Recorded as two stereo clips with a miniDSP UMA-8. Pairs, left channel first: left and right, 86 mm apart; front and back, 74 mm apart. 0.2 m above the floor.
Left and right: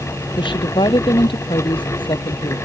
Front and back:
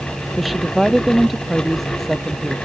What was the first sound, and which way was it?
A woman speaking, 90° left.